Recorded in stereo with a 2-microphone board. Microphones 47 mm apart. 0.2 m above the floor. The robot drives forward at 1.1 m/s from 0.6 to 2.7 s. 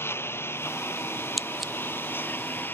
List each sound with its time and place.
0.0 s a lawn mower: 60° left (ahead or behind); by 2.8 s 45° left (ahead or behind)
1.4 s scissors: centre (ahead or behind)